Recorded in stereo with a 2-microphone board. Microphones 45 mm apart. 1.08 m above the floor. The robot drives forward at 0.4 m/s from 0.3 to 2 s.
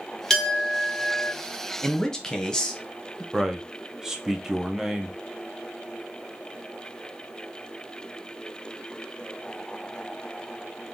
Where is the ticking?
No ticking in this recording.